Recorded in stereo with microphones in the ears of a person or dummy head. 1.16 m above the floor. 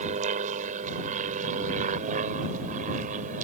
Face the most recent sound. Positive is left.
turn(degrees=-40)  # may be behind; listen again after turning